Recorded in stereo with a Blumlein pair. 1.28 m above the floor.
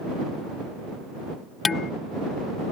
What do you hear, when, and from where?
1.6 s dishes clattering: 15° left